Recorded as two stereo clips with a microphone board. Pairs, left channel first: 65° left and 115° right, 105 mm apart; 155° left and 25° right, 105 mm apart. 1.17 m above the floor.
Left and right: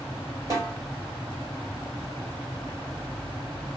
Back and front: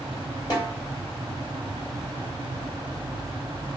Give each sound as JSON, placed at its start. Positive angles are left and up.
{"t": 0.5, "sound": "a snare drum", "azimuth_deg": -160, "distance_m": 1.4}